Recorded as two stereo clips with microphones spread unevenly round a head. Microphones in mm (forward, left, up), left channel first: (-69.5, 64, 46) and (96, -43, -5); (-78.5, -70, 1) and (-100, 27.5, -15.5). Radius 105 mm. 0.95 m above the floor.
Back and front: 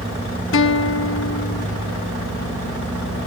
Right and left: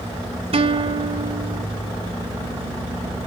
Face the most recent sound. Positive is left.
turn(degrees=120)